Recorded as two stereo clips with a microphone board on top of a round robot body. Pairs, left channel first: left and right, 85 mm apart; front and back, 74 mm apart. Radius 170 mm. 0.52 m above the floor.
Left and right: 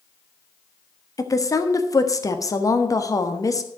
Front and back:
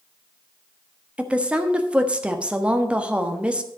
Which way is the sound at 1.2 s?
110° left.